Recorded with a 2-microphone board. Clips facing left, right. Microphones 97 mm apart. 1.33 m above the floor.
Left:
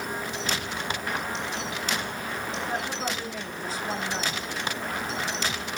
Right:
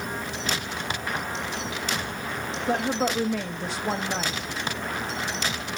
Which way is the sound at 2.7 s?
70° right (ahead or behind).